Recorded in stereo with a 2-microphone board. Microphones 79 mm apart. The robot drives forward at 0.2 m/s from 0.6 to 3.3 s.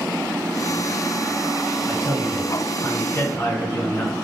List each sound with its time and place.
1.9 s a man speaking: 40° left (ahead or behind), 1.6 m